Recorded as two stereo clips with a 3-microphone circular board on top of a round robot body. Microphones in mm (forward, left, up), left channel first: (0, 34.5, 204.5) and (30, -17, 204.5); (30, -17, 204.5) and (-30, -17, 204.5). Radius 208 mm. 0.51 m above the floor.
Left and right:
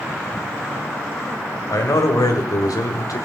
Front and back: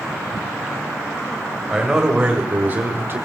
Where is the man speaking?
95° left, 3.5 m; by 3.3 s 135° left, 2.5 m.